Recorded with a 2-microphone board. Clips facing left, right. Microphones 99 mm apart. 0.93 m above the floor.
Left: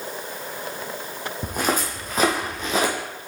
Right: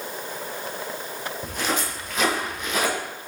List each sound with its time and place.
1.4 s footsteps: 50° left (ahead or behind), 2 m; by 2.9 s 30° left (ahead or behind), 2 m